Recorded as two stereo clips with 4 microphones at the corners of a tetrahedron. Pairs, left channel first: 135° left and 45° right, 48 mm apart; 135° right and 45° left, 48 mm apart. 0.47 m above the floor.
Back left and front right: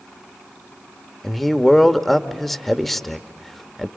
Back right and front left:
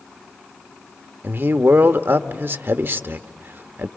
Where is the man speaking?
50° left, 1.0 m.